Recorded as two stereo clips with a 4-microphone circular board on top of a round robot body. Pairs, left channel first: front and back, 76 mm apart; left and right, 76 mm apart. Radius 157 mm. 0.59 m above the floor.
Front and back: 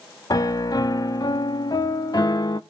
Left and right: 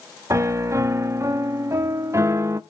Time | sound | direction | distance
0.3 | a piano | 40° right | 0.6 m